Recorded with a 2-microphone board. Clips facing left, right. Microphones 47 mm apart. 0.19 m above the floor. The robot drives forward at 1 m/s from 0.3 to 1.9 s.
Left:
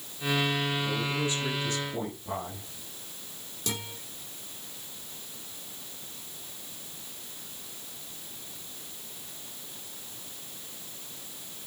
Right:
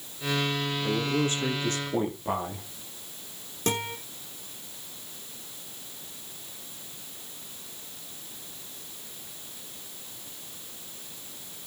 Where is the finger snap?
No finger snap in this recording.